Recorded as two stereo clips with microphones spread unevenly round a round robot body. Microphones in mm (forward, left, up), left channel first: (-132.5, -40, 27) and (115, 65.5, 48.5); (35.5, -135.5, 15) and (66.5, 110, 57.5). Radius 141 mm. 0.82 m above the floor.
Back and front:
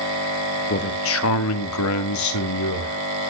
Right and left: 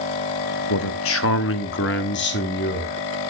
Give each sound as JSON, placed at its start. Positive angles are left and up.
{"t": 0.7, "sound": "a man speaking", "azimuth_deg": -110, "distance_m": 1.1}